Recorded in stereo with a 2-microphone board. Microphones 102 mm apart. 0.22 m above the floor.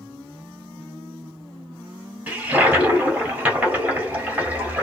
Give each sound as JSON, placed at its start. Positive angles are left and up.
{"t": 2.3, "sound": "a toilet flushing", "side_deg": -15, "distance_m": 1.5}